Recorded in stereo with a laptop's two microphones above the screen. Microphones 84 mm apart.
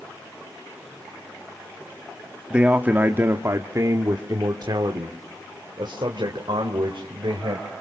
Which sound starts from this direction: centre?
A man speaking, at 2.5 s.